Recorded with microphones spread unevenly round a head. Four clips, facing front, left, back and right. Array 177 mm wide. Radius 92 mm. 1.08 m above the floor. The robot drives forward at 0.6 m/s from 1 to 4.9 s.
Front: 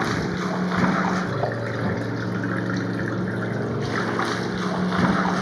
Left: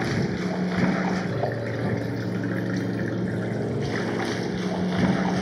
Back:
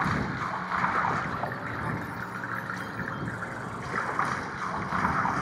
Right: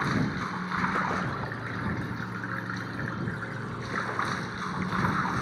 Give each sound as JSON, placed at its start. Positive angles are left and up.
{"t": 0.0, "sound": "running water", "azimuth_deg": 40}